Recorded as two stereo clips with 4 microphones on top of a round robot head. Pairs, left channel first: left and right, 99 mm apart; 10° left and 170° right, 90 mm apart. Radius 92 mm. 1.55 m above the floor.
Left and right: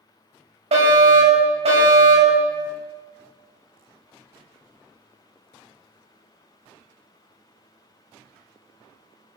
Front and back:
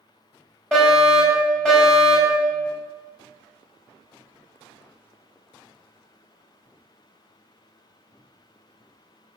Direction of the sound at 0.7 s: 75° right.